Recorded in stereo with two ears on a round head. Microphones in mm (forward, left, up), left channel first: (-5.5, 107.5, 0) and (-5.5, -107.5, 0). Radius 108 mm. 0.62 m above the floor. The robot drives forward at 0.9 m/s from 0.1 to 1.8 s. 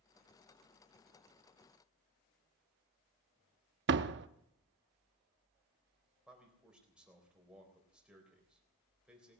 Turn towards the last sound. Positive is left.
turn(degrees=-5)  # may be behind; listen again after turning